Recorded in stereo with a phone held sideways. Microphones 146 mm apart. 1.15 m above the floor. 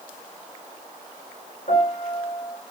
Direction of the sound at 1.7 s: 65° left (ahead or behind).